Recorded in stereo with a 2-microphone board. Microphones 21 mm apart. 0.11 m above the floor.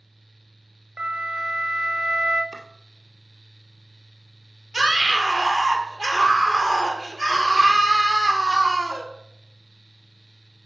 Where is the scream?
30° right (ahead or behind), 3 m.